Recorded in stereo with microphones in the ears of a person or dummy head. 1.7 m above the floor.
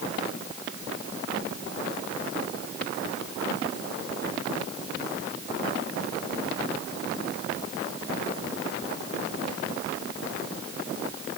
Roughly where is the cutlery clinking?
I don't hear cutlery clinking.